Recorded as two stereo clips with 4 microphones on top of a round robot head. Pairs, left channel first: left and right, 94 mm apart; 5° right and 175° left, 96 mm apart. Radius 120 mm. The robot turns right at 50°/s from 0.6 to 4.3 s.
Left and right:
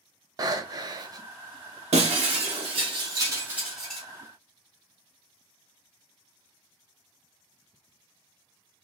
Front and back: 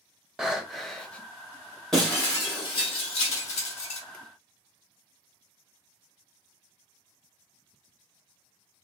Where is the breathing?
105° right, 0.7 m; by 1.3 s 70° right, 0.7 m.